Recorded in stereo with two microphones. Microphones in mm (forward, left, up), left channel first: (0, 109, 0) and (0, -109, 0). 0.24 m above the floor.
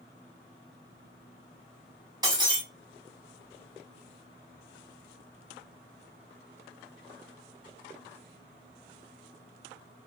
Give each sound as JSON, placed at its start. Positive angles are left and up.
{"t": 2.2, "sound": "breaking glass", "side_deg": -20, "distance_m": 1.1}